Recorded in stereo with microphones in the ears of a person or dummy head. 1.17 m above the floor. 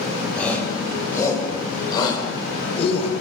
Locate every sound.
0.3 s a shout: 10° left (ahead or behind), 7 m; by 3.1 s 35° left (ahead or behind), 5 m